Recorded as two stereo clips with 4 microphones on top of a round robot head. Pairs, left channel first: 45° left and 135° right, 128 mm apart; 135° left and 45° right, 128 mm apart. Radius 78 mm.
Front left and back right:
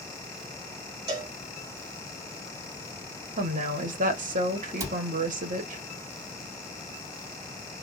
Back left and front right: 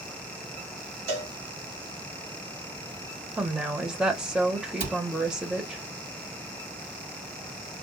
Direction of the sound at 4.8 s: 75° right.